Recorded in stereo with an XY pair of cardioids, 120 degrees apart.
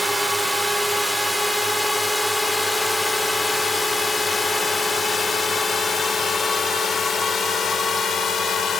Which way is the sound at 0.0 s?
10° right.